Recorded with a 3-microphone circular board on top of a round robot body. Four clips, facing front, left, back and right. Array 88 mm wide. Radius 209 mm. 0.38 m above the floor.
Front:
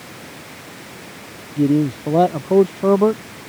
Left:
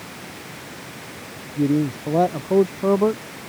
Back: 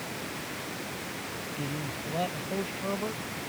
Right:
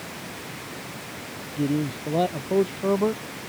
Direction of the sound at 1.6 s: 15° left.